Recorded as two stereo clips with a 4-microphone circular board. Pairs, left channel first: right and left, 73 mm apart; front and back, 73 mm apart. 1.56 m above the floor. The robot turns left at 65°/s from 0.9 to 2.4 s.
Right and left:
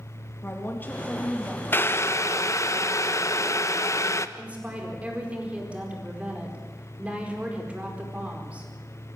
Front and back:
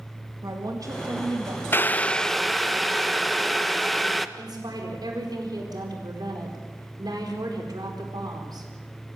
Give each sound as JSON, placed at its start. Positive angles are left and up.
{"t": 0.4, "sound": "a woman speaking", "azimuth_deg": -150, "distance_m": 2.0}
{"t": 1.7, "sound": "boiling", "azimuth_deg": -45, "distance_m": 0.8}
{"t": 4.4, "sound": "a woman speaking", "azimuth_deg": 160, "distance_m": 4.5}